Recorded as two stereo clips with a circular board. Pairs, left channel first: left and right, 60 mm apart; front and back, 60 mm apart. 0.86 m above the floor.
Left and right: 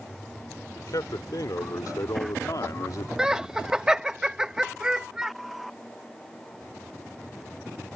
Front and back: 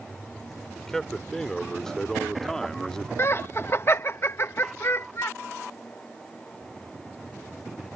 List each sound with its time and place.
0.8 s a man speaking: 85° left; by 3.1 s 80° left
3.2 s laughter: 15° right